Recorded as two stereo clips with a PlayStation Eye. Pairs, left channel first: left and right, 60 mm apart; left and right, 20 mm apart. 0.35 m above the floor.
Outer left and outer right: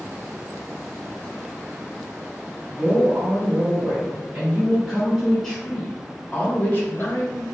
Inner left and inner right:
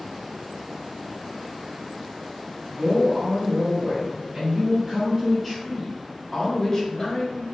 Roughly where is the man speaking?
Right.